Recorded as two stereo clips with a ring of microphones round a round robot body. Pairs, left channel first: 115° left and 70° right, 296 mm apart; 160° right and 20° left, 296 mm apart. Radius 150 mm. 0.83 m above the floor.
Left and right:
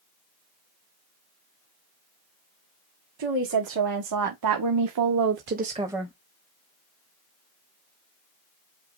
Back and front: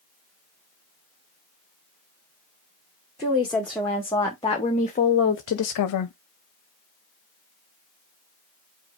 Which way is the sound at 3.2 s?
70° right.